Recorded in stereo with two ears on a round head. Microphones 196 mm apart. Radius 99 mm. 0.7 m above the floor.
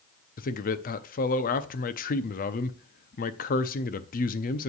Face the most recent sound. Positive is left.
turn(degrees=40)  # may be behind; listen again after turning